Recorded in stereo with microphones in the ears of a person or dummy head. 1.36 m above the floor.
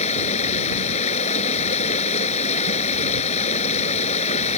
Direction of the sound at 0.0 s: 40° left (ahead or behind).